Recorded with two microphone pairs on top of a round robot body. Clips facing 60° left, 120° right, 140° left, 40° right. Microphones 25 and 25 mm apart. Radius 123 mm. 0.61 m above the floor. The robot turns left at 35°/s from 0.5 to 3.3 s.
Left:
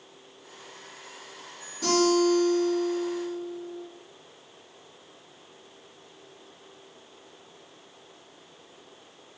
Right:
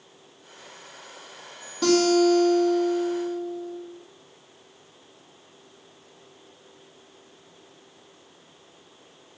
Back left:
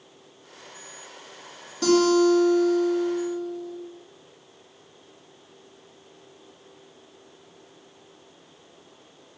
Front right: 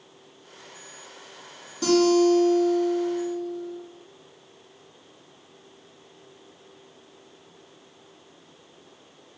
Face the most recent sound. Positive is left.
turn(degrees=160)